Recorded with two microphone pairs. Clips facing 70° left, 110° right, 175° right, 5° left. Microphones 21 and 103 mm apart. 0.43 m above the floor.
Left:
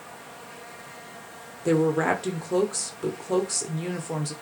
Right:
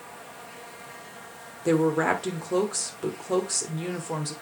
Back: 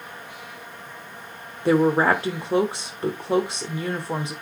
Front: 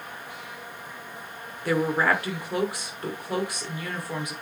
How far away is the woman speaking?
About 1.0 m.